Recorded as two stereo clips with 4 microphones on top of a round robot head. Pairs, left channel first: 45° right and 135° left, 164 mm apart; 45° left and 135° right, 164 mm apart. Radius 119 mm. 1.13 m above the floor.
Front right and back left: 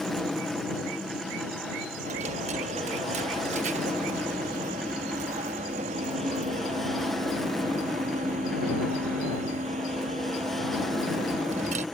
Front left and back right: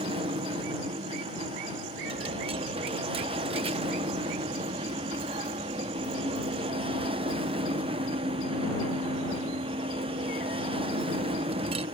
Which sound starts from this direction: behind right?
An aircraft, at 0.0 s.